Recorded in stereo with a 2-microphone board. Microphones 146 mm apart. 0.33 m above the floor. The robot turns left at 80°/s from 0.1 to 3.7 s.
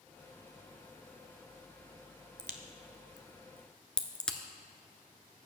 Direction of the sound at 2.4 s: 75° right (ahead or behind).